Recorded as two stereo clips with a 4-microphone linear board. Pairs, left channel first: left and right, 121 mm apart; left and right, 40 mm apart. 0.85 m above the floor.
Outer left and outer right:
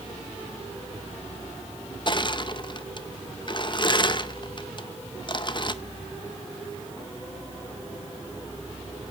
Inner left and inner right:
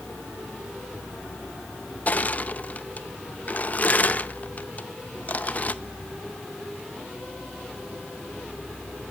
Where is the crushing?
40° left (ahead or behind), 0.7 m.